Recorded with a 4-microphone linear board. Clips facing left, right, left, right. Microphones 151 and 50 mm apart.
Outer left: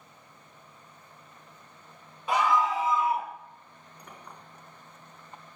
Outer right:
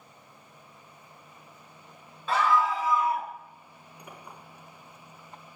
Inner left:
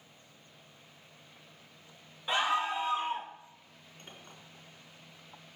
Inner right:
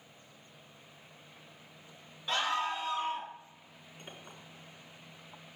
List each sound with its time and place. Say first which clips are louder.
2.3 s a scream: even, inner left 2 dB; 15° left (ahead or behind), 2 m; by 3.3 s 25° left (ahead or behind), 2.5 m
4.0 s a clink: outer right 2 dB, inner right 2 dB; 10° right (ahead or behind), 4.5 m